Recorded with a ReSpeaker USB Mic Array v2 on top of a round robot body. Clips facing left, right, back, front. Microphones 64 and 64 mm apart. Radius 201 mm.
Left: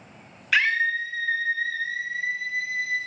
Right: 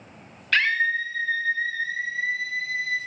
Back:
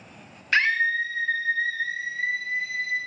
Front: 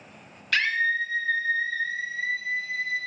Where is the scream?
160° left, 0.8 m; by 3.0 s 175° right, 3 m.